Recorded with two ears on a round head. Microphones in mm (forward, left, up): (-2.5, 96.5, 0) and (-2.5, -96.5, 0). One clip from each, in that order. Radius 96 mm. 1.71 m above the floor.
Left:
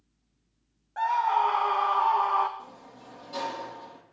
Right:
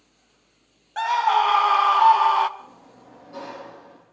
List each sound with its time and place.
1.0 s a scream: 70° right (ahead or behind), 1.7 m; by 2.5 s 80° right, 2.0 m
2.6 s a sliding door: 80° left, 9 m